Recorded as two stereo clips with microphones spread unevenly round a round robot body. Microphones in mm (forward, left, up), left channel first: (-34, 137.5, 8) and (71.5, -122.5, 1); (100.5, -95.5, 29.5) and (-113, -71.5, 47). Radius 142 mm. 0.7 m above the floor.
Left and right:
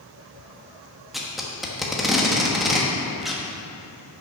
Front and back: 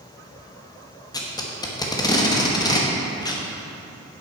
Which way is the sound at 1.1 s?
20° left.